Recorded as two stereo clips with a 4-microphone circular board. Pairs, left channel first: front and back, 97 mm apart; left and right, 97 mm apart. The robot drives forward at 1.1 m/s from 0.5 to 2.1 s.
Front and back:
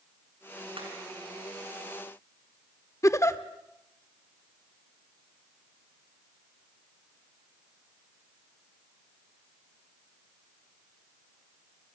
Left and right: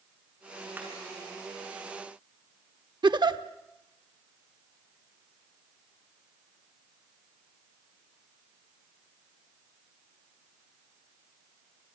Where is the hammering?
160° right, 7 m.